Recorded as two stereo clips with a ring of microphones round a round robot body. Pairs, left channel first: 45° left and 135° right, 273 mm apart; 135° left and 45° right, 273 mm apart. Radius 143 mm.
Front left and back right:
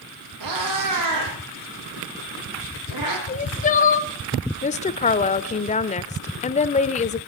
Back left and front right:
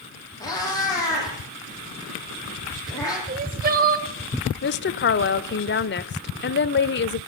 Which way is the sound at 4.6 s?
100° left.